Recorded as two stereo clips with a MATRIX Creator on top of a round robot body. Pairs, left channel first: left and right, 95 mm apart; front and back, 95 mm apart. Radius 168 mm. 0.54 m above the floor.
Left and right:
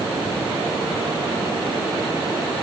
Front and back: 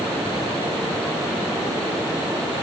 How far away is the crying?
No crying in this recording.